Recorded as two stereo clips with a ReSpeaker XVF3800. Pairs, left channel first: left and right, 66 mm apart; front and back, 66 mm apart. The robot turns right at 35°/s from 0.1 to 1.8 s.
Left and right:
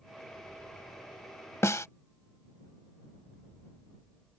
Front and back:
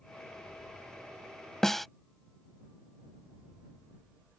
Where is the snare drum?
80° left; by 1.9 s 85° left.